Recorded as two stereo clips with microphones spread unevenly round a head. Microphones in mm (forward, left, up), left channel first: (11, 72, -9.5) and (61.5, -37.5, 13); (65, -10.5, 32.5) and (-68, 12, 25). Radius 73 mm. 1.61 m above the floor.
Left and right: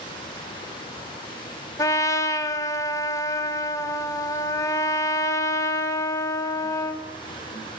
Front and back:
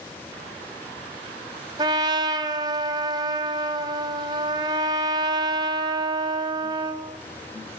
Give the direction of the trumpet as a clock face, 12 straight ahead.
6 o'clock.